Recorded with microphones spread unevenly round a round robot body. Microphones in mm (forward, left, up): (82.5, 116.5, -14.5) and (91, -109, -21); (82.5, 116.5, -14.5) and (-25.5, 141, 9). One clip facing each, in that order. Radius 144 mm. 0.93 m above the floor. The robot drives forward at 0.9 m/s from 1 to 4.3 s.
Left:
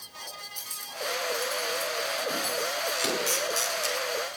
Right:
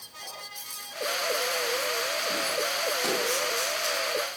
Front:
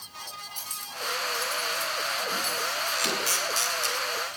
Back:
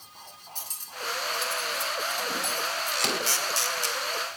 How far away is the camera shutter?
About 1.5 m.